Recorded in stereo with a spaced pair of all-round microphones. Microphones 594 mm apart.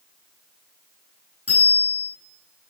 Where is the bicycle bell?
25° left (ahead or behind), 9 m.